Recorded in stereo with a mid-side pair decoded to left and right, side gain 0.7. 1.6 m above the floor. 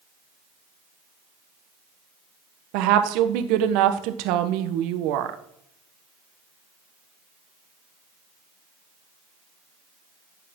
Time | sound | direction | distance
2.7 | a woman speaking | 65° right | 1.3 m